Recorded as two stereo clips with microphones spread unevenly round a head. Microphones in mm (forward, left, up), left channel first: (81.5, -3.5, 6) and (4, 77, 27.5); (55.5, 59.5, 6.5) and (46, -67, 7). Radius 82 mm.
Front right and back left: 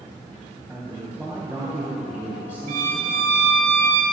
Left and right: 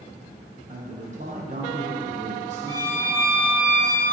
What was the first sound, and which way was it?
A man speaking, 145° right.